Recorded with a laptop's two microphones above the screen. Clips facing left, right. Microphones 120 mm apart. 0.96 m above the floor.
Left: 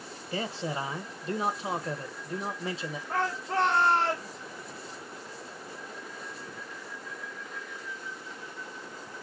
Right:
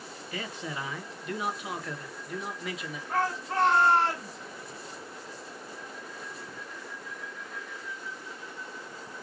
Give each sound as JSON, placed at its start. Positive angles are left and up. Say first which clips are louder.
{"t": 0.3, "sound": "a man speaking", "louder": "left 5 dB", "side_deg": 30, "distance_m": 0.8}
{"t": 3.1, "sound": "a shout", "louder": "right 1 dB", "side_deg": 15, "distance_m": 2.5}